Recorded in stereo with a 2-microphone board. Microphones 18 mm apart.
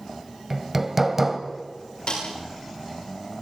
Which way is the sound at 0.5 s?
15° right (ahead or behind).